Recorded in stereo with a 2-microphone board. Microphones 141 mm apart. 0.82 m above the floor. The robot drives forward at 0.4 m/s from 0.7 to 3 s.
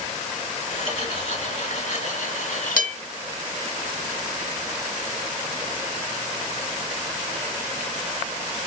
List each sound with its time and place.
0.9 s cutlery clinking: 40° left (ahead or behind), 1.3 m; by 3.0 s 80° left, 0.9 m